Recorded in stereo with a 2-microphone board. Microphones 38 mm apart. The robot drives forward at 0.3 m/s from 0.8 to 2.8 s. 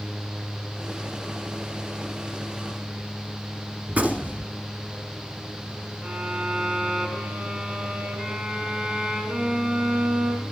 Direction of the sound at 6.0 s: 25° right (ahead or behind).